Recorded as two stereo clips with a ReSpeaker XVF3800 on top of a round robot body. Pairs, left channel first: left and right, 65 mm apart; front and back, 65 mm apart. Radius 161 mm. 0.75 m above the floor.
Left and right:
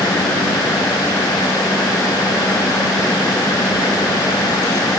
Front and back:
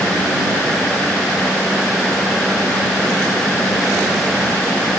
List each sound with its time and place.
Only background noise.